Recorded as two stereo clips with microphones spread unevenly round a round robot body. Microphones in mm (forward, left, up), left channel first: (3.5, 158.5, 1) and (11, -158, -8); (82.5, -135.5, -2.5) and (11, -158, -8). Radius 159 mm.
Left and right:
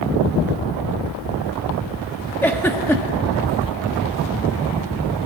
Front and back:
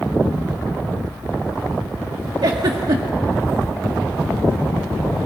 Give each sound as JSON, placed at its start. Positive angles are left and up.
{"t": 2.4, "sound": "a giggle", "azimuth_deg": 175, "distance_m": 1.6}